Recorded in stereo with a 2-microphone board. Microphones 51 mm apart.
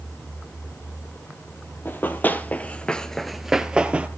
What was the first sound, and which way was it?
Running footsteps, 40° left (ahead or behind).